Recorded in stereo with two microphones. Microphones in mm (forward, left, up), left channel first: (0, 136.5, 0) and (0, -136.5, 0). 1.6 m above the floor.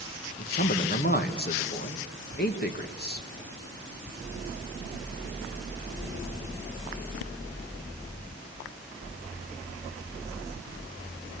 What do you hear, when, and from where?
0.4 s a man speaking: 35° left (ahead or behind), 1.7 m